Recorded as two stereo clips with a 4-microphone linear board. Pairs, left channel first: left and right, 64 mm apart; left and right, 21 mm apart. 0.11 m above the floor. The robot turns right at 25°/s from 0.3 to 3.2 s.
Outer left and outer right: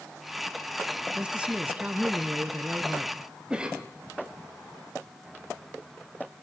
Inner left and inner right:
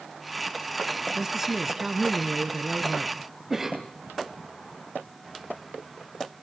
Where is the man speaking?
155° right, 1.4 m; by 3.1 s 105° right, 1.4 m.